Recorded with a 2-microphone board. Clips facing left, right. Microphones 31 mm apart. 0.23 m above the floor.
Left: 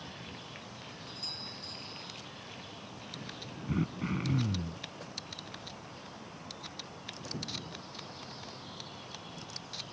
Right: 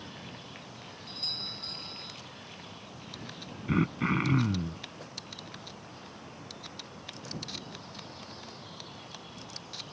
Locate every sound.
1.1 s a doorbell: 45° right (ahead or behind)
3.7 s throat clearing: 40° right (ahead or behind)